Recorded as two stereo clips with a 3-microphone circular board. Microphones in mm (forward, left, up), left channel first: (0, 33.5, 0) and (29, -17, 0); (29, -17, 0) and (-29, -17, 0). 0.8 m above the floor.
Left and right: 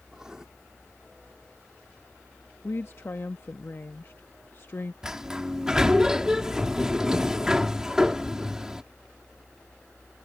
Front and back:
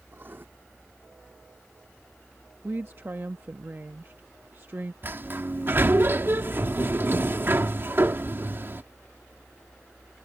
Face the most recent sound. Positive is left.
turn(degrees=-140)